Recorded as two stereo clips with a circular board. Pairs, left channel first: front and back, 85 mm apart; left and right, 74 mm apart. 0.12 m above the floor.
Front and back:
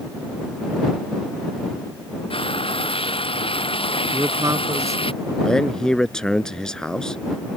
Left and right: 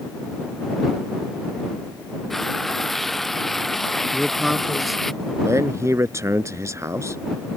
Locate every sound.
2.3 s frying: straight ahead
4.1 s a man speaking: 175° right
5.4 s a man speaking: 80° right